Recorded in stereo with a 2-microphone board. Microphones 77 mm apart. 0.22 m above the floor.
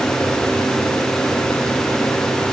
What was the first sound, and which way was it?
Only background noise.